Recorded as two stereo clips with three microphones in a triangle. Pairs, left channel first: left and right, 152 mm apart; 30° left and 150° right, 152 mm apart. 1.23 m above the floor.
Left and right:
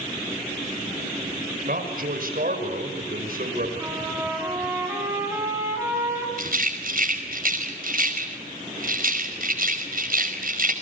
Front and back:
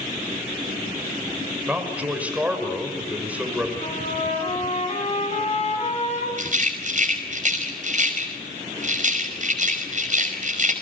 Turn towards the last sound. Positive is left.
turn(degrees=-115)